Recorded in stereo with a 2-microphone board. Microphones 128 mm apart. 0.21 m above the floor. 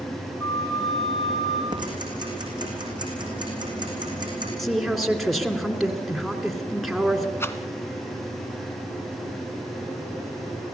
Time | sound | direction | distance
0.4 | a flute | 30° left (ahead or behind) | 7 m
1.7 | ticking | 35° right (ahead or behind) | 6 m
4.6 | a woman speaking | centre (ahead or behind) | 2.5 m
7.4 | a rattle | 20° left (ahead or behind) | 1.3 m